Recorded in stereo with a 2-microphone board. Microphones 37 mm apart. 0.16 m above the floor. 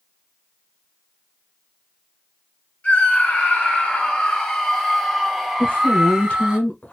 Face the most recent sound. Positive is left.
turn(degrees=45)  # may be behind; listen again after turning